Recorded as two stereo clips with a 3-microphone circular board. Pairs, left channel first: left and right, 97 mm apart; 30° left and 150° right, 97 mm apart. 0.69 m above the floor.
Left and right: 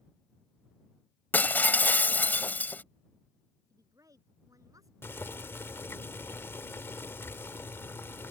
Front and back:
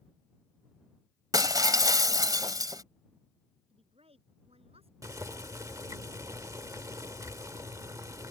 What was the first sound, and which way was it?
Breaking glass, 160° left.